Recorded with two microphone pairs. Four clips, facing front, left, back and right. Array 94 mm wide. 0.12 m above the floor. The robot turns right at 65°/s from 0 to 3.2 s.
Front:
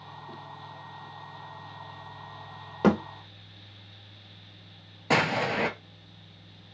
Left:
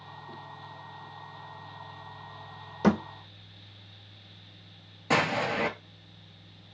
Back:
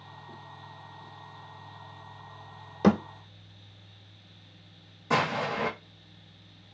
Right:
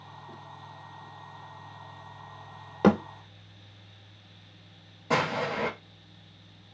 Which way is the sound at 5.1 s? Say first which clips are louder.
Left 1 dB, front 2 dB; 15° left.